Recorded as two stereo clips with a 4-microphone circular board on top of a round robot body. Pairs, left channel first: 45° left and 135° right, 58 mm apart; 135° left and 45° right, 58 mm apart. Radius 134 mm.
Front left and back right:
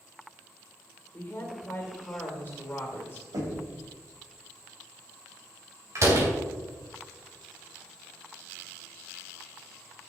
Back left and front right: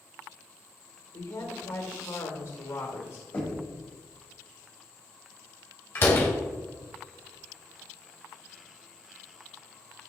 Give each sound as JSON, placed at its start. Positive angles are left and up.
{"t": 1.1, "sound": "a woman speaking", "azimuth_deg": 110, "distance_m": 2.5}
{"t": 3.3, "sound": "knocking", "azimuth_deg": -165, "distance_m": 3.5}
{"t": 6.0, "sound": "a door slam", "azimuth_deg": -175, "distance_m": 3.5}